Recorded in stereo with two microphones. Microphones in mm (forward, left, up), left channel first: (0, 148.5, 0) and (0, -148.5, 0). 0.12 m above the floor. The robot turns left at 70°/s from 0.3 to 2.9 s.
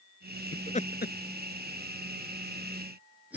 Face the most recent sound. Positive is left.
turn(degrees=-5)  # may be behind; listen again after turning